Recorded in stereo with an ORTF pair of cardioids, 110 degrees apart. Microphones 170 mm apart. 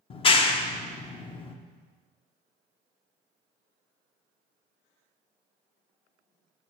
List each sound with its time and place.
0.1 s a clap: 35° left, 0.6 m